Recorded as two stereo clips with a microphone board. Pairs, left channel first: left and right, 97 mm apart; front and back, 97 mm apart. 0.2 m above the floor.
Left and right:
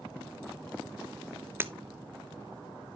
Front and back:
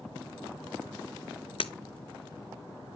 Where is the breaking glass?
20° right, 0.5 m.